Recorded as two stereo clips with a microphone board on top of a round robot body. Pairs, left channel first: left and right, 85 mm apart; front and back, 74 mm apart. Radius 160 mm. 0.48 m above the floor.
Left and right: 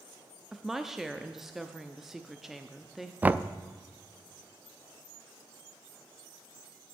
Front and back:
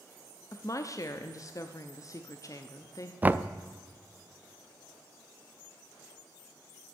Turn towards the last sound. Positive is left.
turn(degrees=-140)